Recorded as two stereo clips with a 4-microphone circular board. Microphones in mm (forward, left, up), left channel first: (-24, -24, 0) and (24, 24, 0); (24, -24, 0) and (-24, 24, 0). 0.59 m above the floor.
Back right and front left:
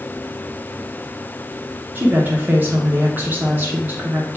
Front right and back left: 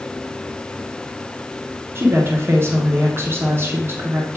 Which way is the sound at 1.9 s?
95° left.